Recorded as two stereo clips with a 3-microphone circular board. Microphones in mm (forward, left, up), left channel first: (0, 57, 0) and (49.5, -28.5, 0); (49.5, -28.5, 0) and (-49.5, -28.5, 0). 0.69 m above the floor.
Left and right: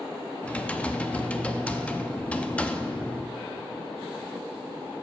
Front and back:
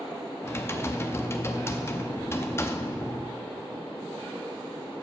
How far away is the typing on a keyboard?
About 0.5 m.